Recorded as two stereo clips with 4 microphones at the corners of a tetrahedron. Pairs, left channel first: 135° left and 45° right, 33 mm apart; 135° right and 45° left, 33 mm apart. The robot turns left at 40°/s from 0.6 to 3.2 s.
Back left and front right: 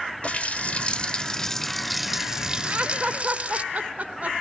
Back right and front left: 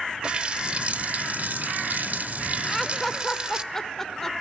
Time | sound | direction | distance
0.2 | a running tap | 95° left | 1.2 m
2.6 | laughter | 40° right | 2 m